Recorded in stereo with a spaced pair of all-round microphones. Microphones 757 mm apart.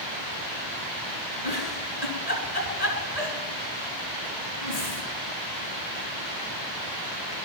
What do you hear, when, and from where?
1.4 s a giggle: 55° left (ahead or behind), 3.5 m